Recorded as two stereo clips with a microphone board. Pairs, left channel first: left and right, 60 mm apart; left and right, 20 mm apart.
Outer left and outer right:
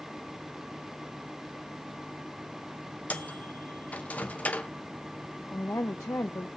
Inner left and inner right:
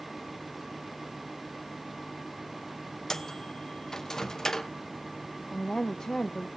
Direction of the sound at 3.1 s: 25° left (ahead or behind).